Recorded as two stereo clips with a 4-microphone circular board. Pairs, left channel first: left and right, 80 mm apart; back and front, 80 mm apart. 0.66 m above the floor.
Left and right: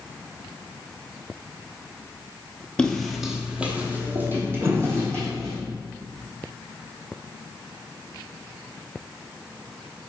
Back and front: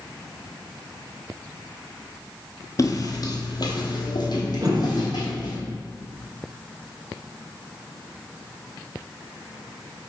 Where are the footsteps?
165° left, 0.8 m; by 5.6 s 145° right, 2.5 m.